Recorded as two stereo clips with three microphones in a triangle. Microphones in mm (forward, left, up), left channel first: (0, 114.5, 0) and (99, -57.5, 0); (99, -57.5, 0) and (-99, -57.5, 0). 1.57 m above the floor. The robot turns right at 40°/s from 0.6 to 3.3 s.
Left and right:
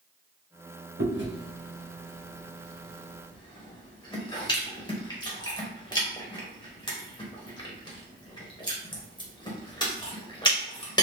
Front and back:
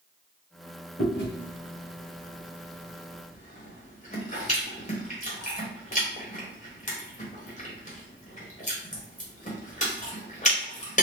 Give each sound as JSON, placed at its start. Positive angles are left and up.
{"t": 1.0, "sound": "chewing", "azimuth_deg": -40, "distance_m": 1.1}